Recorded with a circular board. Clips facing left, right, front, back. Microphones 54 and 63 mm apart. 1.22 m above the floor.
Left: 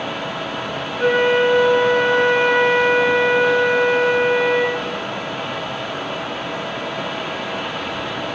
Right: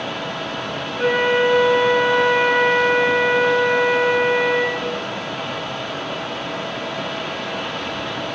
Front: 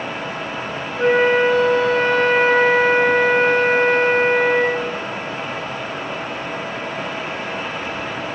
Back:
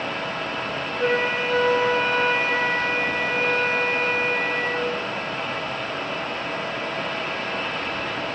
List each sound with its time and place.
1.0 s a flute: 15° right, 4.5 m